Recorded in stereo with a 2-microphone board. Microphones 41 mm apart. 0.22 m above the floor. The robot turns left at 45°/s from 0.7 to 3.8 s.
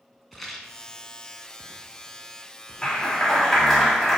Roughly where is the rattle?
Centre.